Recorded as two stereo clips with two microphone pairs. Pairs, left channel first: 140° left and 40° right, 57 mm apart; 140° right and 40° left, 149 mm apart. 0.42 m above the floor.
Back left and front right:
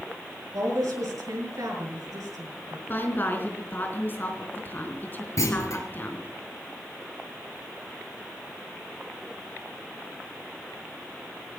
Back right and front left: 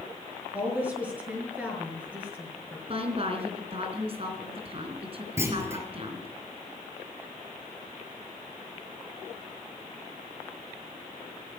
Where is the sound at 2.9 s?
85° left, 4 m.